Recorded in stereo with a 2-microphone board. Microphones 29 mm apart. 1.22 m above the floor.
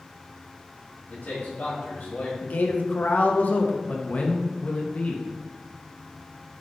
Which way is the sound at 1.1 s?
80° left.